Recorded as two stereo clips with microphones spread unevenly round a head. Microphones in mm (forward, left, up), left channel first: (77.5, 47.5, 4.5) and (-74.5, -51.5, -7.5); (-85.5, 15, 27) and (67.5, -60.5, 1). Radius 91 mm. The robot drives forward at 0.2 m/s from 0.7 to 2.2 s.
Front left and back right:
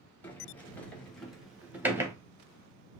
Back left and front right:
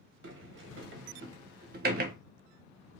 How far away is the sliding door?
About 0.7 m.